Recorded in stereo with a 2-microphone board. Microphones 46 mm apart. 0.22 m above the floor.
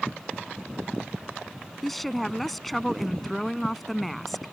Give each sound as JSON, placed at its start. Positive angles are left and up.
{"t": 1.8, "sound": "a woman speaking", "side_deg": 5}